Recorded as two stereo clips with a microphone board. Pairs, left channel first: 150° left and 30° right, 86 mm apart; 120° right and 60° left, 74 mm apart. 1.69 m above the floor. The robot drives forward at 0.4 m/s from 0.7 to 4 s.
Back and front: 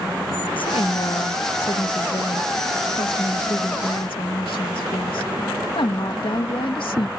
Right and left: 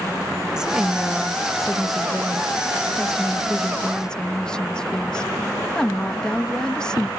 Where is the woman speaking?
140° left; by 7.1 s 160° left.